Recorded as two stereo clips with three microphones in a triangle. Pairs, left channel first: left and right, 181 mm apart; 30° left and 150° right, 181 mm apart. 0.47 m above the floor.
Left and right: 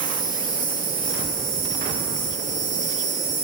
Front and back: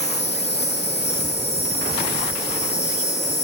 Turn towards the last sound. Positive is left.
turn(degrees=50)